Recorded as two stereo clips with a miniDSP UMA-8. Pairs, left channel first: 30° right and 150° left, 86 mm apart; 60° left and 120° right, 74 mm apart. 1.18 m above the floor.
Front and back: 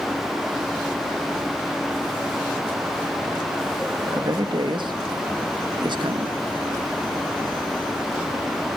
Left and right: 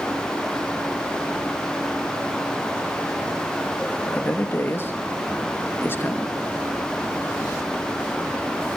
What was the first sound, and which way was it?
A man speaking, 120° left.